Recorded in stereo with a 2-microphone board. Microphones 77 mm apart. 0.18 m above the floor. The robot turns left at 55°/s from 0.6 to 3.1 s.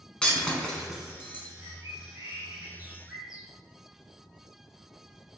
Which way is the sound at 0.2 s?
10° left (ahead or behind).